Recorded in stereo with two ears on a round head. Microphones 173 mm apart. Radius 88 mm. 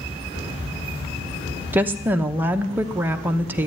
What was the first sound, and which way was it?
A woman speaking, 10° right (ahead or behind).